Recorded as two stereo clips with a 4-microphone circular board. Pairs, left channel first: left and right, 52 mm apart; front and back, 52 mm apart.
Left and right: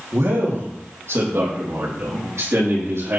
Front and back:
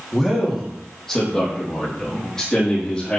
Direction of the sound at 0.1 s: 90° right.